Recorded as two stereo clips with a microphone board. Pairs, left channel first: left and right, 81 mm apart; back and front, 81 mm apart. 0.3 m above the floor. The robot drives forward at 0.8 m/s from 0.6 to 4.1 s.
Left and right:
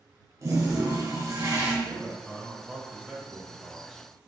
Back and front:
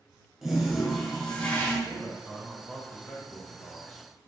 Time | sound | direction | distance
0.4 | a toilet flushing | 85° right | 1.8 m
1.8 | a man speaking | 15° right | 1.2 m